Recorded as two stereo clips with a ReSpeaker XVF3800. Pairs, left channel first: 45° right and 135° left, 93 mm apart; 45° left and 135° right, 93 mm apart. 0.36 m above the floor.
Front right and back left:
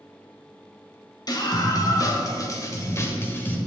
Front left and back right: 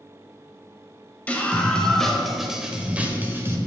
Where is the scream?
25° right, 1.9 m; by 3.6 s 100° right, 1.5 m.